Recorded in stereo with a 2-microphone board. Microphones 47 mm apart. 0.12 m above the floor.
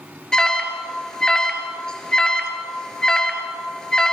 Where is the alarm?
15° left (ahead or behind), 2.5 m.